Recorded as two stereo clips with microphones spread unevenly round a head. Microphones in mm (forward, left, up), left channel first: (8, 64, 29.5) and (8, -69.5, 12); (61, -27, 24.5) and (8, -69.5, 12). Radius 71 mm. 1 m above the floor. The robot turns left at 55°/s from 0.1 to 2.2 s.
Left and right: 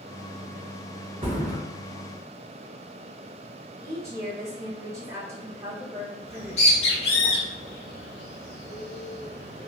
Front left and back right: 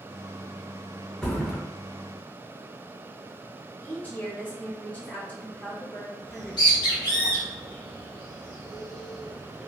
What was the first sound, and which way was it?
A thud, 35° right.